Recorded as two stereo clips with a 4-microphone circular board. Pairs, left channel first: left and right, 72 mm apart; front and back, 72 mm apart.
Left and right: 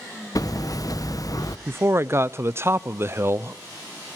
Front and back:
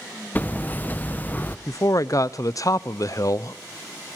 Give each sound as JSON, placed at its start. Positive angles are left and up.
{"t": 0.3, "sound": "hammering", "azimuth_deg": 65, "distance_m": 0.9}
{"t": 1.7, "sound": "a man speaking", "azimuth_deg": -35, "distance_m": 0.6}